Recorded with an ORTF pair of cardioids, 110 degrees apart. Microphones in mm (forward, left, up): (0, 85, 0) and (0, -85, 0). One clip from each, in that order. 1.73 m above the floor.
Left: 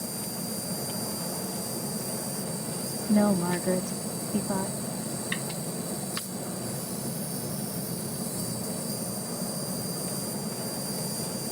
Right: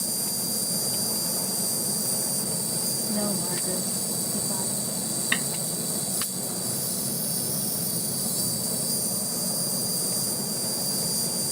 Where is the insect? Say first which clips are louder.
Right 5 dB; 50° right.